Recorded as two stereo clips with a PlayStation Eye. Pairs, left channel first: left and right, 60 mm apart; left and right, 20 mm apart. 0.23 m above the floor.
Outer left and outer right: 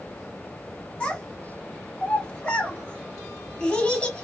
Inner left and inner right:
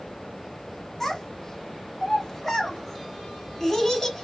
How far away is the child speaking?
About 1.3 m.